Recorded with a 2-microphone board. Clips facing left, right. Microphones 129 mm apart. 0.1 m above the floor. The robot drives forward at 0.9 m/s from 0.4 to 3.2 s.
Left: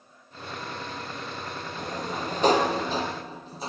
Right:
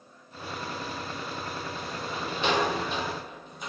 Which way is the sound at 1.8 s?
45° left (ahead or behind).